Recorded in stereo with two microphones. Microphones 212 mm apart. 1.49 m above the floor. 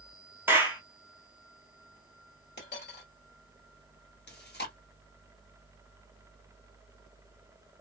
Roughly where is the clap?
Centre.